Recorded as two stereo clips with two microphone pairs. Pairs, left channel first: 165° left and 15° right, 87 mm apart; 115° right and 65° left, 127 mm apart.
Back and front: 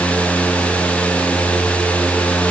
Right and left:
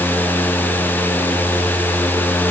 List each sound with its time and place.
Only background noise.